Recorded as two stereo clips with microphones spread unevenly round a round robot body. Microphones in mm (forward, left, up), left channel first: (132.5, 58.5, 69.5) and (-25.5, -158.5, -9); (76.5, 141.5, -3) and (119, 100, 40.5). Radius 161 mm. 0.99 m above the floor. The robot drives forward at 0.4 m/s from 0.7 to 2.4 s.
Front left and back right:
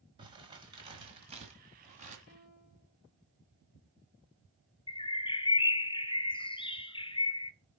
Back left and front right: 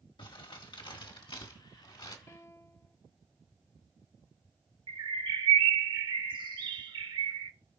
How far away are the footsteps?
I don't hear footsteps.